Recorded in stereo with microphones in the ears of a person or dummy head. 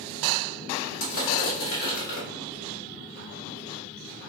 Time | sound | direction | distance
1.0 | crushing | 70° left (ahead or behind) | 1.4 m